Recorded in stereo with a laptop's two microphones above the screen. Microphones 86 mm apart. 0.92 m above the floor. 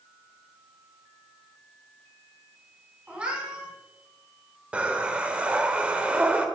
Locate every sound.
3.1 s a cat meowing: 15° right (ahead or behind), 4 m
4.7 s breathing: 15° right (ahead or behind), 0.7 m